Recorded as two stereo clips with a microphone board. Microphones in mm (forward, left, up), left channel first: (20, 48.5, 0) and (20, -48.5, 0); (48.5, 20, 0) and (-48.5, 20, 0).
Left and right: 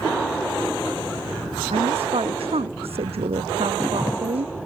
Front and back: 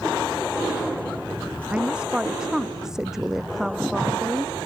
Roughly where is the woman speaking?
Right.